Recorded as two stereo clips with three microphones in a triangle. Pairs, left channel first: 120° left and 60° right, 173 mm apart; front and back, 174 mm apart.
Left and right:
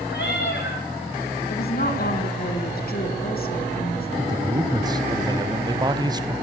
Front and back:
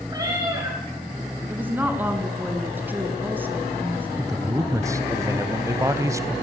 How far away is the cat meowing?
About 10 m.